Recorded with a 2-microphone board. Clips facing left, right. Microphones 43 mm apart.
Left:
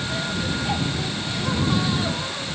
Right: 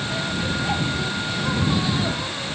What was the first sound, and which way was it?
Only background noise.